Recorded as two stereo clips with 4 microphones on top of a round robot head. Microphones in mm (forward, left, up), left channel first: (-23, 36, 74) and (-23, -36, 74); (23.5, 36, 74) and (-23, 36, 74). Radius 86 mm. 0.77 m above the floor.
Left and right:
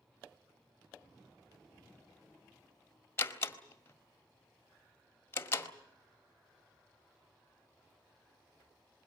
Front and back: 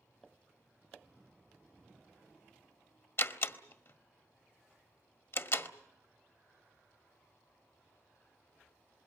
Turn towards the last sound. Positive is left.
turn(degrees=30)